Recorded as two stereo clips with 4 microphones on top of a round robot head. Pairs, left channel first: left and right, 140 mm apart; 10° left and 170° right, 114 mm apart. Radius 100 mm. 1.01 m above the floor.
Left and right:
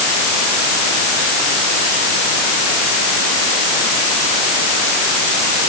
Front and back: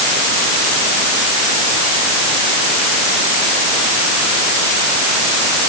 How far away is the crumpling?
No crumpling in this recording.